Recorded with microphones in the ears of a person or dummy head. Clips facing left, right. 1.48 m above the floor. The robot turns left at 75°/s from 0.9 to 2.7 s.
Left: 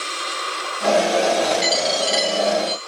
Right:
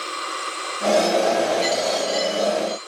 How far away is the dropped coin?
About 1.3 m.